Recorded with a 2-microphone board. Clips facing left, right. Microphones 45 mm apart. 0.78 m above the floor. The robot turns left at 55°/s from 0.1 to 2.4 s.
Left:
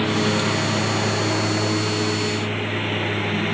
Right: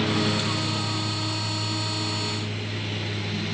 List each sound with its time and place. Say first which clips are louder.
0.0 s a lawn mower: left 4 dB; 165° left; by 3.5 s 40° left